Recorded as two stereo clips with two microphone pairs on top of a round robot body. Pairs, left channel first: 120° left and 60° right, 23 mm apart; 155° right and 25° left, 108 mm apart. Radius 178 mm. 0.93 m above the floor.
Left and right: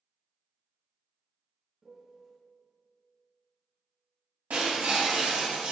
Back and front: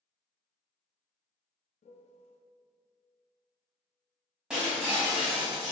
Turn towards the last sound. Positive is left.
turn(degrees=-60)